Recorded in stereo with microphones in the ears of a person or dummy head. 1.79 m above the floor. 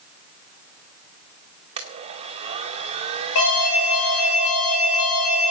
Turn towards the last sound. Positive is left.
turn(degrees=75)  # may be behind; listen again after turning